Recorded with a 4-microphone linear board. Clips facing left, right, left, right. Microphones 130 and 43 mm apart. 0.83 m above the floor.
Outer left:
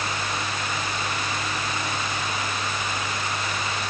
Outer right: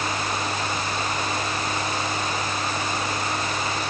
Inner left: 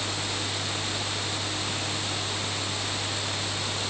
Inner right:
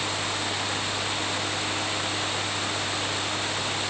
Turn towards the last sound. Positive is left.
No sound to turn to.